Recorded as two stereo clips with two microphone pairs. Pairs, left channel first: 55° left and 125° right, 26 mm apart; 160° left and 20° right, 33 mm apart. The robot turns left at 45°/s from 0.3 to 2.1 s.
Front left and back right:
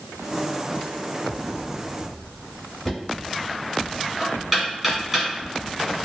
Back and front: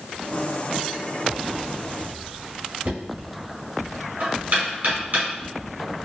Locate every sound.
2.9 s knocking: 40° right, 1.8 m